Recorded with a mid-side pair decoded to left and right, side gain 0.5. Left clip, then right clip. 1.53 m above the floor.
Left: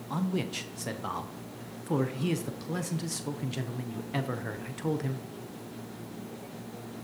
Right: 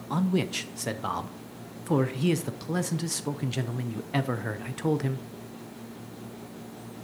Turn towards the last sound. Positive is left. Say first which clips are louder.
# right 5 dB
turn(degrees=-30)